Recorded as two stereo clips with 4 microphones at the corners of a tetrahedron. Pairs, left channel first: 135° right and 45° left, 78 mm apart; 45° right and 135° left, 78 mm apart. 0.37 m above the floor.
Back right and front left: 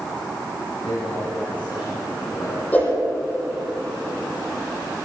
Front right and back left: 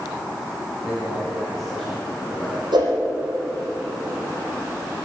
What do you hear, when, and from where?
0.8 s a man speaking: 140° right, 5 m; by 2.6 s 115° right, 4 m
2.7 s a whoosh: 155° left, 7 m